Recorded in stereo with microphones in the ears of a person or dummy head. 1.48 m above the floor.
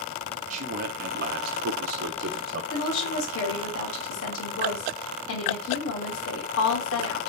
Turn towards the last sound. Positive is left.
turn(degrees=80)